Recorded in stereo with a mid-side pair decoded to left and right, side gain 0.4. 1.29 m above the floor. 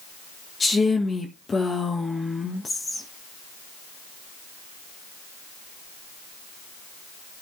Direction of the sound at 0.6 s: 35° left.